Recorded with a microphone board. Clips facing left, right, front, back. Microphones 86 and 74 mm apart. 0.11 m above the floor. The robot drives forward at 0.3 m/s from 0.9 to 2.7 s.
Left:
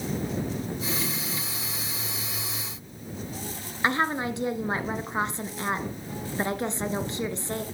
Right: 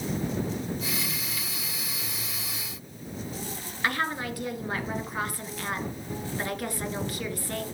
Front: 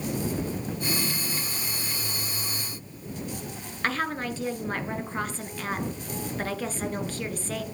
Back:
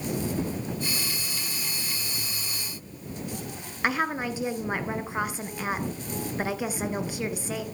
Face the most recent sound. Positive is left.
turn(degrees=115)